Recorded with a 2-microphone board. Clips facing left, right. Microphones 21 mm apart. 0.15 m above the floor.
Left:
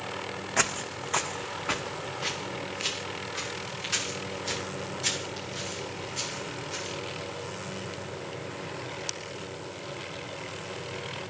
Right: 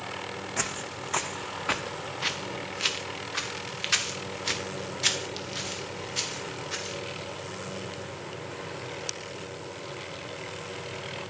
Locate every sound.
0.6 s footsteps: 25° left (ahead or behind), 0.6 m; by 7.0 s 45° right (ahead or behind), 3.5 m